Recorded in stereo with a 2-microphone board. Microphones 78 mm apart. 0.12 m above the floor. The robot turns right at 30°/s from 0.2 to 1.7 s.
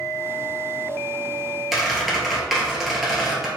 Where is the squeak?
5° right (ahead or behind), 1.1 m.